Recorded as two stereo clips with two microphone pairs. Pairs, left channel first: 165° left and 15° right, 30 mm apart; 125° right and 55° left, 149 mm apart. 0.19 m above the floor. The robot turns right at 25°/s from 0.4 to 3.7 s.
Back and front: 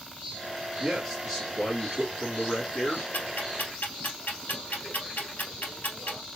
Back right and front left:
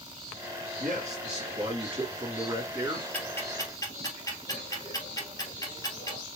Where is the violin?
I don't hear a violin.